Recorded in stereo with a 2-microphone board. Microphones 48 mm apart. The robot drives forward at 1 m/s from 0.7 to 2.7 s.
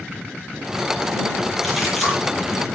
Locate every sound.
1.6 s a splash: 5° left (ahead or behind), 10 m